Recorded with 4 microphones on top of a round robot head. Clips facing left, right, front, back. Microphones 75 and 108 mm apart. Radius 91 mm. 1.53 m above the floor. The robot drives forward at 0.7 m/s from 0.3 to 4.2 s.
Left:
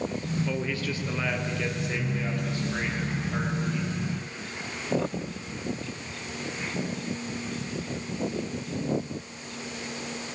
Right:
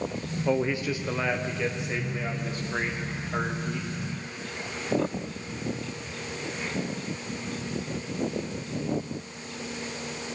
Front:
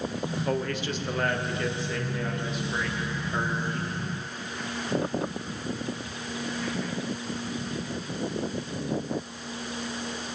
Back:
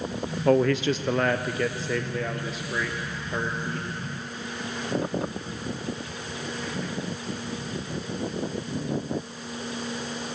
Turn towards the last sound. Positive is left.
turn(degrees=-175)